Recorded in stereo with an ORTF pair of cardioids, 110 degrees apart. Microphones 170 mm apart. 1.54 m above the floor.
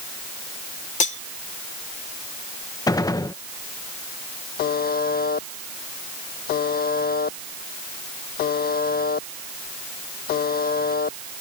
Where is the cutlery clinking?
50° left.